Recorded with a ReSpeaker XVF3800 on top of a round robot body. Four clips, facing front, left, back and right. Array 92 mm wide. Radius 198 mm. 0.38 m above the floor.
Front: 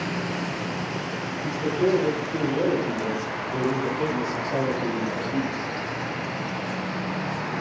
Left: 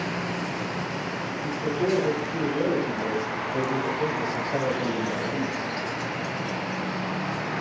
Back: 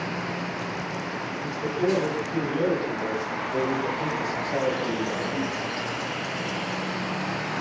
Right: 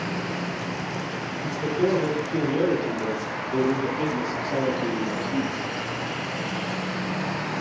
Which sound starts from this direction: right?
A man speaking, at 1.4 s.